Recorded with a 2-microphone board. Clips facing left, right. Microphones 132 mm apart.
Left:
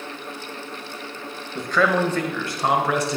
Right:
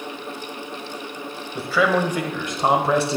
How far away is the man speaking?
About 1.3 m.